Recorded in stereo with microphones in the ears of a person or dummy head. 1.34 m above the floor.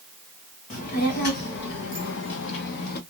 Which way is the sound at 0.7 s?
40° left (ahead or behind).